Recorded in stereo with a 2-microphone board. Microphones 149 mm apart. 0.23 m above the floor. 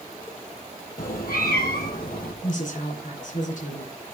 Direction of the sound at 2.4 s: 60° left (ahead or behind).